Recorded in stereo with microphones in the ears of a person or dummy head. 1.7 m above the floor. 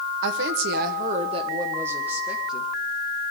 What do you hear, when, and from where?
0.2 s a woman speaking: 70° right (ahead or behind), 1.1 m; by 2.7 s centre (ahead or behind), 1.7 m